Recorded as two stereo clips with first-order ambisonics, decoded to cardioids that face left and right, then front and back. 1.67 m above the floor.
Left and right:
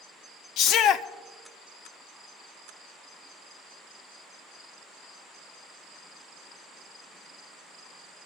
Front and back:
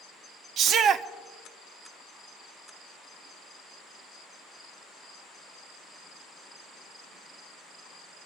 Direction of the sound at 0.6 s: 130° left.